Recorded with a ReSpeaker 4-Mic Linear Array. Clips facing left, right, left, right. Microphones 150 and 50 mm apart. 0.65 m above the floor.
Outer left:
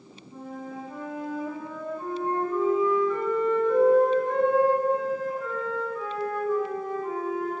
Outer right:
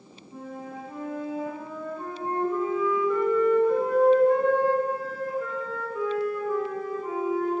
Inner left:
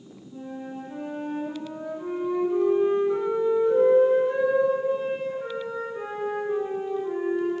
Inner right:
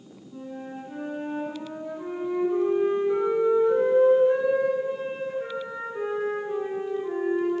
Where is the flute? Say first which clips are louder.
Even, inner left 1 dB; 10° right (ahead or behind), 4 m.